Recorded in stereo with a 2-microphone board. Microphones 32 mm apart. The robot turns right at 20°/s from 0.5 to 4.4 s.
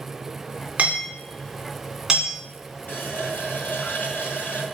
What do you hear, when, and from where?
0.8 s hammering: 50° right (ahead or behind), 3 m; by 2.3 s 20° right (ahead or behind), 3 m
2.9 s a running tap: 75° left, 3 m; by 4.7 s 105° left, 3 m